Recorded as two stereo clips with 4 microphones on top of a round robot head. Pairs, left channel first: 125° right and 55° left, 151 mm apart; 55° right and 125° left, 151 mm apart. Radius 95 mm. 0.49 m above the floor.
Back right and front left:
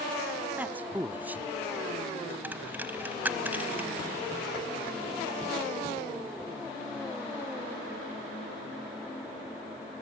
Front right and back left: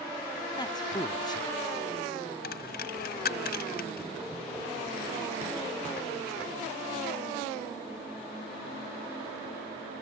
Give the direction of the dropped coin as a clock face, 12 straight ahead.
1 o'clock.